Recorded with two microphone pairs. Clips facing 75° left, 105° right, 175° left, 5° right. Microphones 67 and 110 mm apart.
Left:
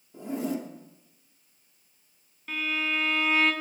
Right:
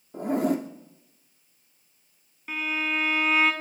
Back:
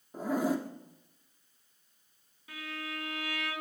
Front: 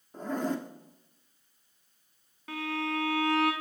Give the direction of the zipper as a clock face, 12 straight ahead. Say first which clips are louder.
Right 6 dB, back 2 dB; 3 o'clock.